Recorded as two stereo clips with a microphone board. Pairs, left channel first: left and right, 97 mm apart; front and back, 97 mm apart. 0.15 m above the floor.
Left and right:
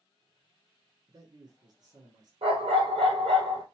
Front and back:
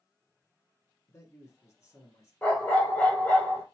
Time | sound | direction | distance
1.1 | a man speaking | 55° right | 2 m
2.4 | a dog barking | 70° right | 1.9 m